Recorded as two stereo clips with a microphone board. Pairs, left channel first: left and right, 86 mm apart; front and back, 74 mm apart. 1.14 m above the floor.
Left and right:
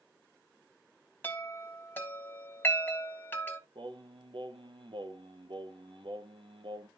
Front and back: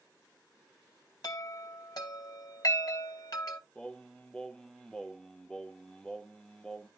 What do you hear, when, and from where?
1.2 s a chime: 25° left, 2.5 m
3.8 s singing: 80° right, 1.0 m